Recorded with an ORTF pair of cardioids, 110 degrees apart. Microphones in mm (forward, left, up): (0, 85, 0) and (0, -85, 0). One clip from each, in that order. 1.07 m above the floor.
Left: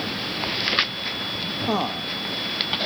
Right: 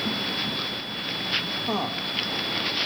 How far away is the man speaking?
About 1.5 m.